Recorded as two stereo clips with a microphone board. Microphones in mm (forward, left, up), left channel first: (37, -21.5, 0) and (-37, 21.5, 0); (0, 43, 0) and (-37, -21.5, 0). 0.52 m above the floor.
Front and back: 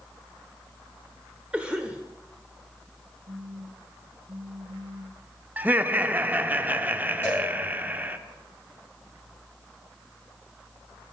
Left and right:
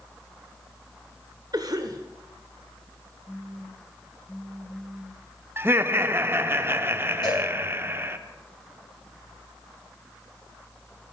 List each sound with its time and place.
1.5 s a cough: 135° right, 1.2 m
3.3 s a phone buzzing: 145° left, 3 m
5.6 s laughter: 155° right, 0.9 m
7.2 s a cowbell: 35° left, 9.5 m